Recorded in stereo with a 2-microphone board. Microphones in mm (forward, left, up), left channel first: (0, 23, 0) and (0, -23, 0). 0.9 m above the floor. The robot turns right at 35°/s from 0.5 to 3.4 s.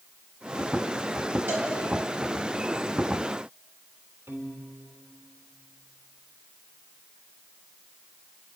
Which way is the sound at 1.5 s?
50° right (ahead or behind).